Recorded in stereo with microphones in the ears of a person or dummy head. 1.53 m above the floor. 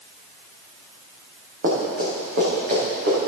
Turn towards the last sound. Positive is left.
turn(degrees=-45)  # may be behind; listen again after turning